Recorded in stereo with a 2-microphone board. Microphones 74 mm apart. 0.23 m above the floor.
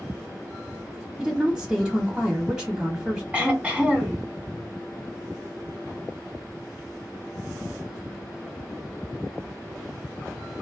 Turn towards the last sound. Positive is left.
turn(degrees=-20)  # may be behind; listen again after turning